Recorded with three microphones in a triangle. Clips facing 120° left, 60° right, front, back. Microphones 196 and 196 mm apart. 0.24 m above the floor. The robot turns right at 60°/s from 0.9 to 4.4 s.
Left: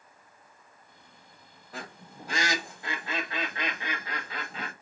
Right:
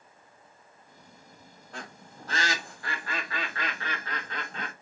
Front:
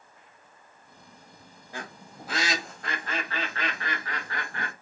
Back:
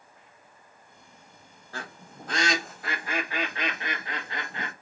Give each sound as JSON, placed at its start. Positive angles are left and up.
{"t": 1.7, "sound": "a bird", "azimuth_deg": 35, "distance_m": 0.9}